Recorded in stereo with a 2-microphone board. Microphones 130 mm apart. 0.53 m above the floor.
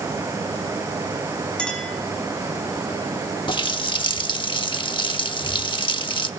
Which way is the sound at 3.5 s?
40° left (ahead or behind).